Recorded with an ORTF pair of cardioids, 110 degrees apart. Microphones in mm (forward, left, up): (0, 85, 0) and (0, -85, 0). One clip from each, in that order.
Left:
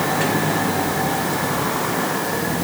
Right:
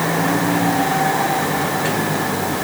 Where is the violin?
No violin in this recording.